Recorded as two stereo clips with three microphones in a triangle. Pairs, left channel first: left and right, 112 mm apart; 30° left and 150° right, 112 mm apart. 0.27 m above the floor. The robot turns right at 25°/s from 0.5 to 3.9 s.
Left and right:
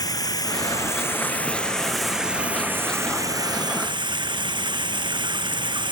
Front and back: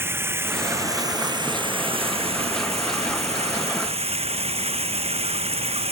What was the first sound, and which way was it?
Running water, 140° left.